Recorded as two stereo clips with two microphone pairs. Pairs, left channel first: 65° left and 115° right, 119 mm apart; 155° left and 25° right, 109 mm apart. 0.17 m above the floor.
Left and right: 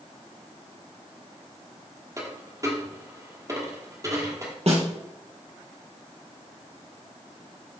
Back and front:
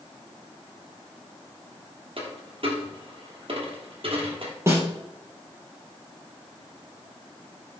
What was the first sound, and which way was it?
A dropped coin, 55° right.